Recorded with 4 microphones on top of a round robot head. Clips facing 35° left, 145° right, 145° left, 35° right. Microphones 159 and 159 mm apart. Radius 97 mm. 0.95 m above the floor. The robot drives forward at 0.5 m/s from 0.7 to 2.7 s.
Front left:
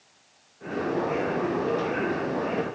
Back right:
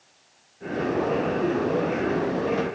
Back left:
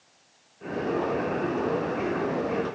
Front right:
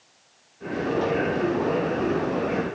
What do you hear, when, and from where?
Only background noise.